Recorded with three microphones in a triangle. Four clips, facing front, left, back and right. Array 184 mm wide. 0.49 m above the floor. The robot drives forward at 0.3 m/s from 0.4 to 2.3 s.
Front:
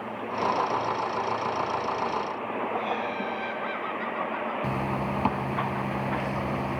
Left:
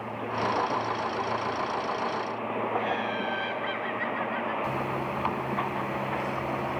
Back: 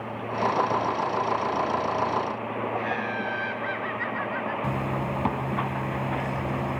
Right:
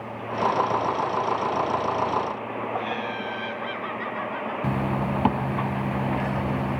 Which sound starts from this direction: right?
A zipper, at 4.6 s.